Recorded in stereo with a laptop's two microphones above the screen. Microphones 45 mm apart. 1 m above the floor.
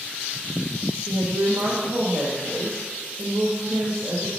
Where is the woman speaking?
70° right (ahead or behind), 0.5 m.